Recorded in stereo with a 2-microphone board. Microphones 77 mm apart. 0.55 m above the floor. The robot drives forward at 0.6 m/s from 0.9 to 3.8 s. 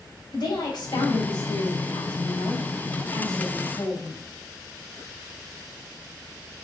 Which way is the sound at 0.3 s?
75° left (ahead or behind).